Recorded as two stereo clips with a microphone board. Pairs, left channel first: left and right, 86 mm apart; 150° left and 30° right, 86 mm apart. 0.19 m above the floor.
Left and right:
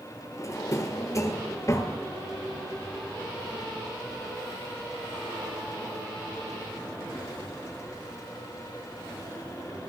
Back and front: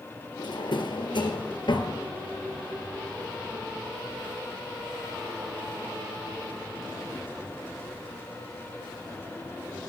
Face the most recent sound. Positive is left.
turn(degrees=140)